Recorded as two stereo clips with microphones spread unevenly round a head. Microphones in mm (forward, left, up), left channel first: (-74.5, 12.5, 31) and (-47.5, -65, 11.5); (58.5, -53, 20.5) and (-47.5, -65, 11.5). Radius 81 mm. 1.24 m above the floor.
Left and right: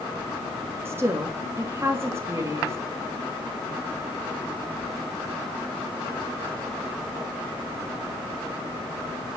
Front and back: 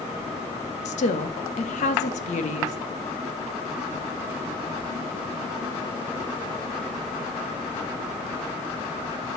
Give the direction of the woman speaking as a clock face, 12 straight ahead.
12 o'clock.